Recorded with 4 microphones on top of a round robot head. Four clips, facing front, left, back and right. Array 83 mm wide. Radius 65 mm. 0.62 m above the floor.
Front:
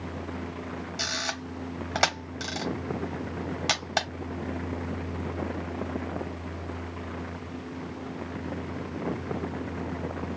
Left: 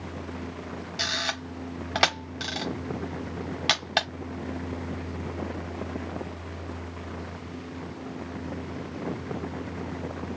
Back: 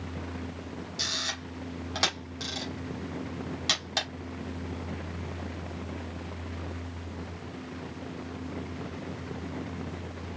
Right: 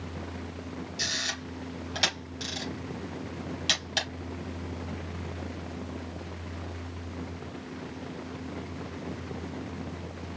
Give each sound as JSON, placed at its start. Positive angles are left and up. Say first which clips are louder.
{"t": 1.0, "sound": "a camera shutter", "louder": "left 5 dB, front 4 dB", "azimuth_deg": 60, "distance_m": 1.2}